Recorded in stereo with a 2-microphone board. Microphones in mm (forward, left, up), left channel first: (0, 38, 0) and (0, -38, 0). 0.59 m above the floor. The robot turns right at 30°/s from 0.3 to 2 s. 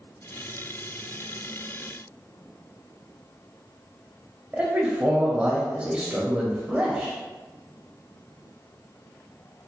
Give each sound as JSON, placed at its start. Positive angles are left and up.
{"t": 4.5, "sound": "a man speaking", "side_deg": -15, "distance_m": 0.8}